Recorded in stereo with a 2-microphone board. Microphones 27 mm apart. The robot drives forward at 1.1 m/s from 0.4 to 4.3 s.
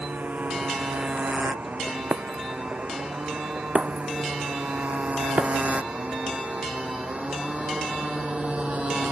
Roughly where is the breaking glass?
Right.